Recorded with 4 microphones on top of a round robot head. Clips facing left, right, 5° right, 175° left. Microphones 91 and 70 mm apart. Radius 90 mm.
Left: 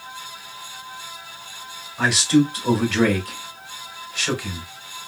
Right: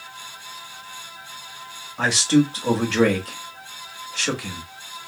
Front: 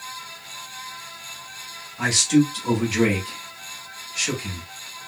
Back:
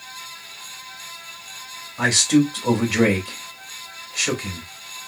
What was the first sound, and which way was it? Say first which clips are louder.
A man speaking: left 1 dB, back 1 dB; 145° right.